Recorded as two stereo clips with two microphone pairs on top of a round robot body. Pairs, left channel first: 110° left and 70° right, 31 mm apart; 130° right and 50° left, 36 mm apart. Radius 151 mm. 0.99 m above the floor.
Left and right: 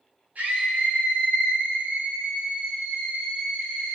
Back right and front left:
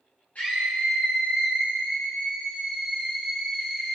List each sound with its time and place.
0.3 s a scream: 90° right, 7 m; by 4.0 s 65° right, 5 m